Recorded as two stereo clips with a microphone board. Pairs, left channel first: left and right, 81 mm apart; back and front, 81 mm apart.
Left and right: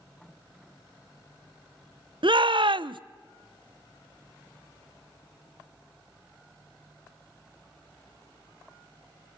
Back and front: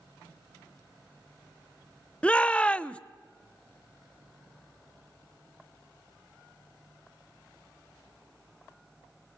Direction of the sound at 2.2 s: 105° right.